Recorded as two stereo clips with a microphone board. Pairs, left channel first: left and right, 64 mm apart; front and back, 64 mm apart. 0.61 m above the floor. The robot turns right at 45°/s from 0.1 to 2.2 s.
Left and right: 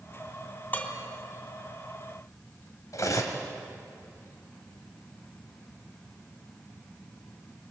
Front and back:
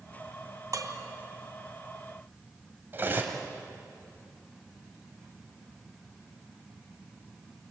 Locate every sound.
0.7 s dishes clattering: 150° left, 2.5 m; by 0.9 s 160° left, 2.5 m
2.9 s cutlery clinking: 125° left, 2.5 m